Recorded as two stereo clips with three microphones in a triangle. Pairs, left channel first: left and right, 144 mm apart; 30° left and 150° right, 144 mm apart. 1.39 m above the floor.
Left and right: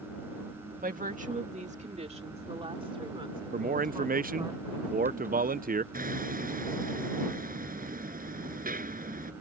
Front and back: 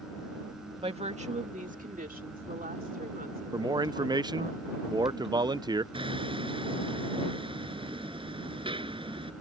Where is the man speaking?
85° right.